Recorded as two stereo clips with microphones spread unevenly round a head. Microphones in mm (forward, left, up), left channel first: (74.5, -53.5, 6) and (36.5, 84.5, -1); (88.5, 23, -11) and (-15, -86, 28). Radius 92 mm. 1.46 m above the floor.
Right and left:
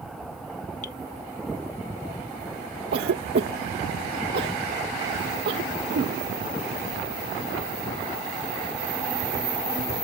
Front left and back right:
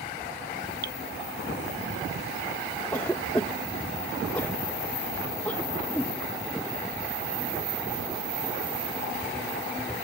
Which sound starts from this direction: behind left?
A cough, at 2.9 s.